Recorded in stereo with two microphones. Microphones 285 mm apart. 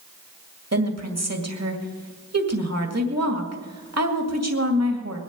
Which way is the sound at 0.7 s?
60° right (ahead or behind).